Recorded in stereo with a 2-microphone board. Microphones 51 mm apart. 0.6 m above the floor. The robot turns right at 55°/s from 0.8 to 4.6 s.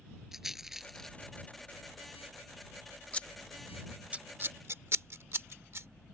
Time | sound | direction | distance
0.3 | a rattle | 5° right (ahead or behind) | ?
3.1 | scissors | 30° left (ahead or behind) | ?